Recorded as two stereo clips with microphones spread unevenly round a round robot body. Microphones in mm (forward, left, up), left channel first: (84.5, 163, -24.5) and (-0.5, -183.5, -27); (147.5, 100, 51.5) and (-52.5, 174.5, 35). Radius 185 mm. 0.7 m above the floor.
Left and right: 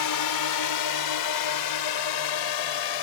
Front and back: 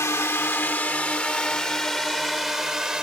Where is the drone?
55° left; by 3.0 s 75° left.